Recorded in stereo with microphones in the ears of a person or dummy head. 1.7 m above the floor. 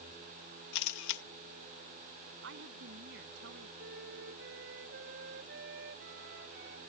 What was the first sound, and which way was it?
A camera shutter, 70° left (ahead or behind).